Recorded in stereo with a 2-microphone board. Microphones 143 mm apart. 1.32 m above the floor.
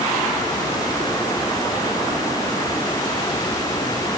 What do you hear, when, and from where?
Only background noise.